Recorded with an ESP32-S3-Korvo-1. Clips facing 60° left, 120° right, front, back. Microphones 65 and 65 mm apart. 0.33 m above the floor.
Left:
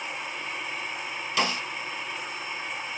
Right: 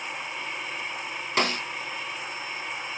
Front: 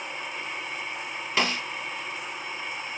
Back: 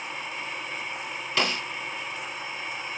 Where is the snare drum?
70° right, 2.5 m.